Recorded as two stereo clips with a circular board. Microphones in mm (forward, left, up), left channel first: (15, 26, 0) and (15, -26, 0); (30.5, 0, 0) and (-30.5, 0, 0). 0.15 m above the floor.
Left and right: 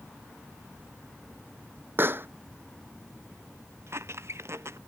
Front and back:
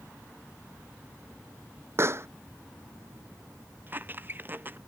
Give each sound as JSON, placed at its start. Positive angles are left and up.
{"t": 2.0, "sound": "a pop", "azimuth_deg": -135}
{"t": 3.9, "sound": "a squeak", "azimuth_deg": -125}